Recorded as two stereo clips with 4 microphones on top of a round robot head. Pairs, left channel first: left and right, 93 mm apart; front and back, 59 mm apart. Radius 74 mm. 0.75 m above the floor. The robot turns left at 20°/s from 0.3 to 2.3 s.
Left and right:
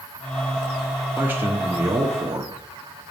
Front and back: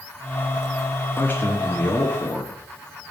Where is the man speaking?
30° right, 1.2 m; by 2.5 s 55° right, 1.2 m.